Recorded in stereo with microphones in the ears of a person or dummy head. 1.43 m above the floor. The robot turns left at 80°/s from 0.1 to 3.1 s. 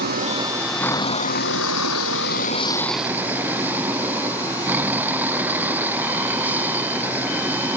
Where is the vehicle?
130° right; by 7.8 s 10° right.